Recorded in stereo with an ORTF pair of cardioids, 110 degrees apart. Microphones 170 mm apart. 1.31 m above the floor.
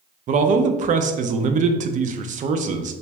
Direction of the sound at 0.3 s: 45° right.